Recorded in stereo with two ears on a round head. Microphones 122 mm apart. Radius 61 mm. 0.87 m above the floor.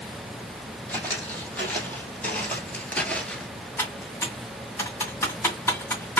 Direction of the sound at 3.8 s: 20° left (ahead or behind).